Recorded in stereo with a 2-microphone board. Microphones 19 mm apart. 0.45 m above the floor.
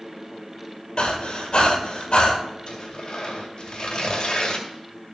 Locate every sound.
1.0 s breathing: 55° left (ahead or behind), 2 m
2.7 s tearing paper: 45° left (ahead or behind), 2.5 m